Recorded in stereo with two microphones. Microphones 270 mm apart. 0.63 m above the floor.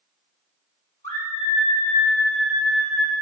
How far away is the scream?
About 1.0 m.